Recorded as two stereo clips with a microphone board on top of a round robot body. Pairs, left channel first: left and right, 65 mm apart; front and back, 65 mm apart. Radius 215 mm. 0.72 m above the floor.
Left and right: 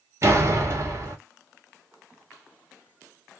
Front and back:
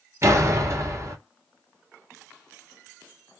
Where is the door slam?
135° right, 1.4 m.